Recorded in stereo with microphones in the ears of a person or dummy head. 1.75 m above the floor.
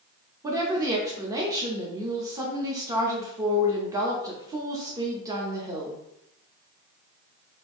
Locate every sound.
0.4 s a woman speaking: 15° right (ahead or behind), 0.7 m